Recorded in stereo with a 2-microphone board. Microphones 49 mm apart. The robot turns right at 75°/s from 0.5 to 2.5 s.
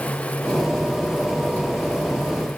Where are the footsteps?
No footsteps in this recording.